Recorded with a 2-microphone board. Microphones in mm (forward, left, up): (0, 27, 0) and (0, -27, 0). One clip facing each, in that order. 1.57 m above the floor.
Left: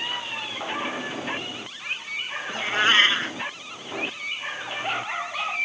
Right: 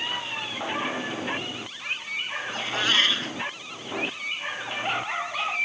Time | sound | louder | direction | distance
2.5 | a cat meowing | left 5 dB | 35° left (ahead or behind) | ?